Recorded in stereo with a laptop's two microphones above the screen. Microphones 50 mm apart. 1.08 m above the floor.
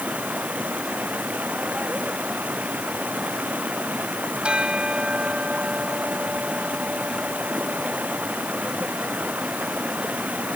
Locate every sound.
0.0 s running water: 35° right (ahead or behind)
4.4 s a bell: 20° right (ahead or behind)